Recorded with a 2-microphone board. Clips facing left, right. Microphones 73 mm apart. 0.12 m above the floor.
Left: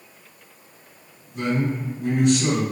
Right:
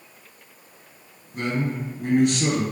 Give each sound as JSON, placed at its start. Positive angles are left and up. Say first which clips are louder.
{"t": 1.3, "sound": "a man speaking", "louder": "left 2 dB", "side_deg": -50, "distance_m": 1.7}